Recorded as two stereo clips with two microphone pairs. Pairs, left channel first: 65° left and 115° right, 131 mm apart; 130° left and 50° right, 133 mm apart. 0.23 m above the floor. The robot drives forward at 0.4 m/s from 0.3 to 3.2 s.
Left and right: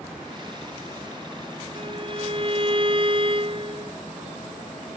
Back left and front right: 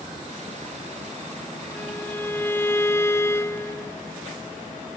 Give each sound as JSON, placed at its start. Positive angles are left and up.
{"t": 1.8, "sound": "a violin", "azimuth_deg": -155}